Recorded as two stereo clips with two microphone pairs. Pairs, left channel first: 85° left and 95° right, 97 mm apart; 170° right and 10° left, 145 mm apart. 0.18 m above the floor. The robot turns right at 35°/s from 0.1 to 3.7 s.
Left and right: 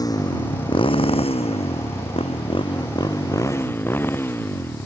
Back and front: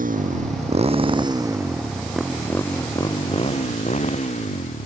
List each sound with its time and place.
0.0 s a motorcycle: 35° left; by 4.9 s 150° left